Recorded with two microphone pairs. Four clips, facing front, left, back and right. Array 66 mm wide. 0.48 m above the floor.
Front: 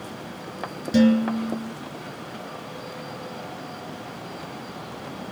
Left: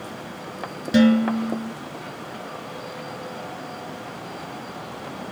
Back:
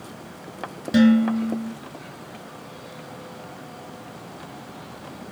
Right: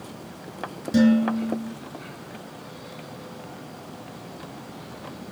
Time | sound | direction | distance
0.9 | dishes clattering | 125° left | 4 m